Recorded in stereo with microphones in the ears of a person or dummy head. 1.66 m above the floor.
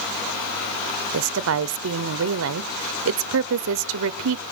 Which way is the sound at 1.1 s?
75° right (ahead or behind).